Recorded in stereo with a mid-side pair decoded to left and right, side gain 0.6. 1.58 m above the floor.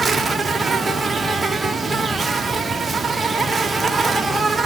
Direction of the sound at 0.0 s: 15° right.